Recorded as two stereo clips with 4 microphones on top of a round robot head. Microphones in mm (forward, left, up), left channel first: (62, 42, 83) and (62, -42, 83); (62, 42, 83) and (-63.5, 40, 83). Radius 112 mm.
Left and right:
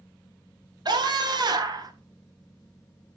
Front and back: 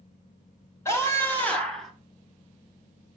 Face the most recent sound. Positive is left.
turn(degrees=-90)